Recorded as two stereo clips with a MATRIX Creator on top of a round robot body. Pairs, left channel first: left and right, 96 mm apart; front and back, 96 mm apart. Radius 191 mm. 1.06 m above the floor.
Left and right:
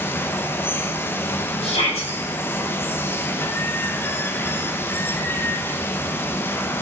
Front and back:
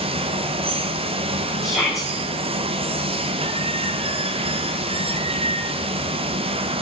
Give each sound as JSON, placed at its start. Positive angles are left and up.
{"t": 0.0, "sound": "running water", "azimuth_deg": 160, "distance_m": 0.8}
{"t": 1.6, "sound": "a shout", "azimuth_deg": 95, "distance_m": 5.5}